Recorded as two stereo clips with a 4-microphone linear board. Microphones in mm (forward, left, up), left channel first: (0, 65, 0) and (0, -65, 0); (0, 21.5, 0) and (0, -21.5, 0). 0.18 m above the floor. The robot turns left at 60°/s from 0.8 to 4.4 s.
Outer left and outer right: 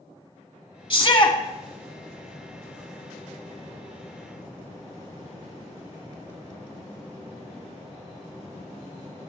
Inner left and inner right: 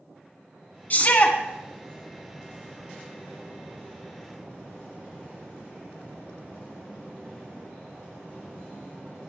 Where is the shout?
40° left (ahead or behind), 1.4 m.